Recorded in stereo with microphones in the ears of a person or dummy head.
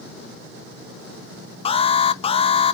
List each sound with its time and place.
1.6 s an alarm: 30° left (ahead or behind), 0.7 m